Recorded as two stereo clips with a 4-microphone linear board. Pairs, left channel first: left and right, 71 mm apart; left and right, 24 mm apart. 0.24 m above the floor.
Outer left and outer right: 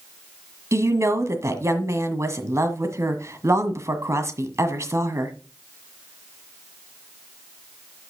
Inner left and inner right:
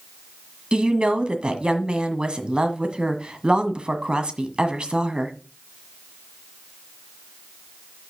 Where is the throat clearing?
No throat clearing in this recording.